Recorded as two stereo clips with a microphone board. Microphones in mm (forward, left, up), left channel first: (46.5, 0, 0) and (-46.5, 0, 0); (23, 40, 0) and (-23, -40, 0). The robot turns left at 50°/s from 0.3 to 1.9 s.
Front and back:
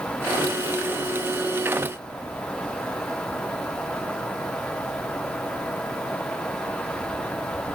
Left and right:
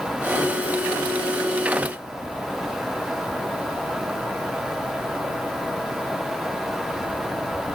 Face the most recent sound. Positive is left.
No sound to turn to.